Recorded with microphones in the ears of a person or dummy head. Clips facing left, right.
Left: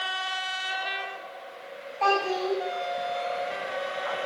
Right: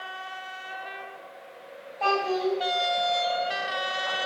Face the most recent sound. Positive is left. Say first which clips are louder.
# right 1 dB
turn(degrees=-10)  # may be behind; listen again after turning